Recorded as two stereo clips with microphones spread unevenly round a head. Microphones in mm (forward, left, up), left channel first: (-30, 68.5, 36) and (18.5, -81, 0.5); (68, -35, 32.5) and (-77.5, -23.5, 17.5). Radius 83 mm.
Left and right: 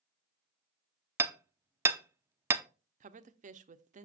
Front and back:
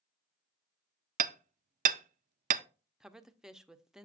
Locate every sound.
1.2 s hammering: 150° right, 0.5 m
3.0 s a woman speaking: 100° right, 0.7 m